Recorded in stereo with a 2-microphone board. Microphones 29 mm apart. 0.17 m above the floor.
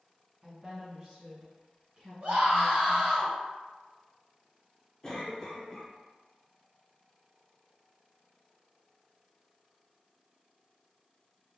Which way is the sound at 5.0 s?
20° left (ahead or behind).